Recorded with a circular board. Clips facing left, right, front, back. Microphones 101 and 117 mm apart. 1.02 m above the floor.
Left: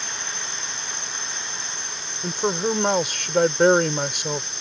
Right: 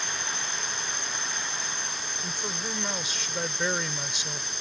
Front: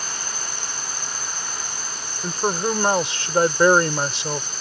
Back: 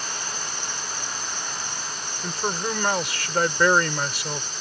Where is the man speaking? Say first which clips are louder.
Left 15 dB, front 5 dB; 65° left.